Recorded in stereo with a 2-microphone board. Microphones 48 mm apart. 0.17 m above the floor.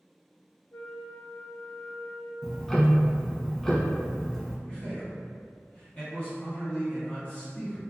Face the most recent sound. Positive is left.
turn(degrees=25)  # may be behind; listen again after turning